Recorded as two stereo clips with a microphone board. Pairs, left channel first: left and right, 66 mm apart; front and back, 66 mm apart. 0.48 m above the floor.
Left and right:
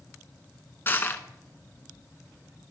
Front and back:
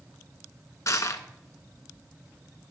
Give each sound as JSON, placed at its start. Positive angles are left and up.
{"t": 0.9, "sound": "crushing", "azimuth_deg": 30, "distance_m": 0.8}